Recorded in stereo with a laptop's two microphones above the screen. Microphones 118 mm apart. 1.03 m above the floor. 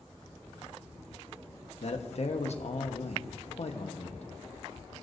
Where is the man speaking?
60° left (ahead or behind), 1.2 m.